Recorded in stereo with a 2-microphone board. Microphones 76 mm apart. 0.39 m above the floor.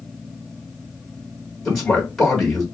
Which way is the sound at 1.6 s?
5° left (ahead or behind).